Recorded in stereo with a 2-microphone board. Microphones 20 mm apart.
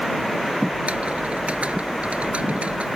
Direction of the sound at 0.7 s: 85° right.